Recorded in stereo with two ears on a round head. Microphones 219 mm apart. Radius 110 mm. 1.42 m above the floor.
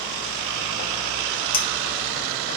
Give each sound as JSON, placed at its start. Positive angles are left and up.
{"t": 1.5, "sound": "a clink", "side_deg": 20, "distance_m": 0.6}